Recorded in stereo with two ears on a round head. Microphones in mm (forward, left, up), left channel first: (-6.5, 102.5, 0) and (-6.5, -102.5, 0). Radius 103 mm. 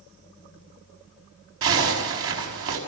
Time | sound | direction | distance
1.6 | a zipper | 65° right (ahead or behind) | 6.5 m